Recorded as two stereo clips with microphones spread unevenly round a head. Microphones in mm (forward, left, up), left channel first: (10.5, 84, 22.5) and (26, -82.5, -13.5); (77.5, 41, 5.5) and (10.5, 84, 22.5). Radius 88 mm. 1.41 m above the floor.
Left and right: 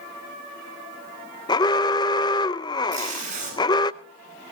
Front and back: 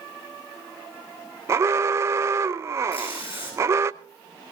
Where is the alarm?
135° left, 0.6 m.